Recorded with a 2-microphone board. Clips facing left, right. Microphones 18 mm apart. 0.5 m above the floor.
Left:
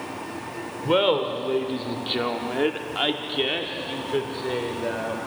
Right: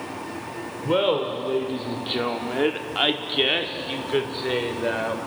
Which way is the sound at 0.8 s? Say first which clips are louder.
Left 1 dB; 25° left (ahead or behind).